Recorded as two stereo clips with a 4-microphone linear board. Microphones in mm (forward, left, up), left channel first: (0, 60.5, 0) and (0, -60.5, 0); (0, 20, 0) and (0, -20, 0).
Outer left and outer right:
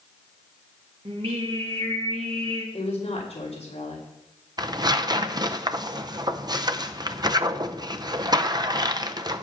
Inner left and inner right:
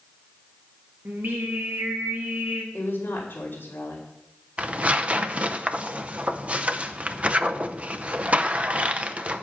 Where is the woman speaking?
55° left (ahead or behind), 4 m.